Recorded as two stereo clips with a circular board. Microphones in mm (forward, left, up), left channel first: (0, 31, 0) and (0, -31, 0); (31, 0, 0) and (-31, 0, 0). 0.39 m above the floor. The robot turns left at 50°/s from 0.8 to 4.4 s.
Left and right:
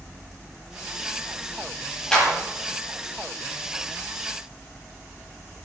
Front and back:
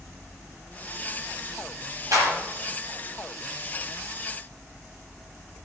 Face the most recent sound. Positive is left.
turn(degrees=55)